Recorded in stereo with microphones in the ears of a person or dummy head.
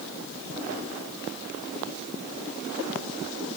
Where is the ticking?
I don't hear ticking.